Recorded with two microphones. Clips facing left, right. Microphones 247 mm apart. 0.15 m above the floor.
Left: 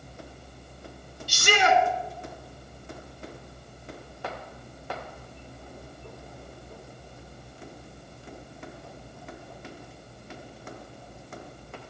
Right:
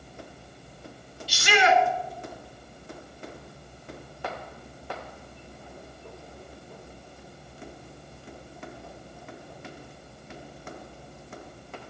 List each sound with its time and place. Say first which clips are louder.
1.3 s a shout: right 1 dB; 50° left (ahead or behind), 1.9 m